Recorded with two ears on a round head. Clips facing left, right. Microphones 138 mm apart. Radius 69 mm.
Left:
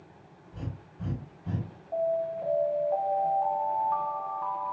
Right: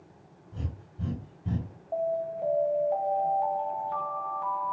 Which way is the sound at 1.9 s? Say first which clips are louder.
Left 1 dB; 25° right (ahead or behind).